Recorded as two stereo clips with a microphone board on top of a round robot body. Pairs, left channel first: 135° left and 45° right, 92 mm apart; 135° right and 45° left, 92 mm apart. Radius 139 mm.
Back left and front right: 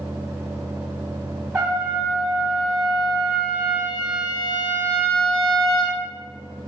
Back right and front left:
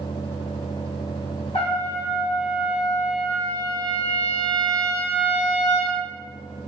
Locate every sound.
1.5 s a trumpet: 115° right, 1.1 m